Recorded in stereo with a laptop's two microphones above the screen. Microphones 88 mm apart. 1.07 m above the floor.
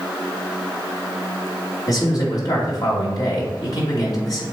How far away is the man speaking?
About 2.5 m.